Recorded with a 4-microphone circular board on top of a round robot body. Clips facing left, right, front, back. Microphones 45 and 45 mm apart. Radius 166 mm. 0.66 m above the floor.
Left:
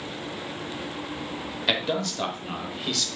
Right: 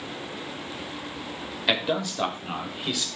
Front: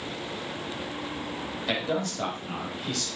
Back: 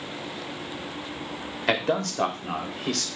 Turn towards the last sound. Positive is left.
turn(degrees=-165)